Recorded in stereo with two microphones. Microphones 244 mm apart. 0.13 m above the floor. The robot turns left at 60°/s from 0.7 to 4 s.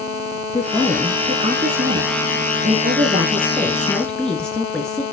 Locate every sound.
0.5 s a woman speaking: 15° left, 1.5 m; by 5.0 s 175° left, 1.5 m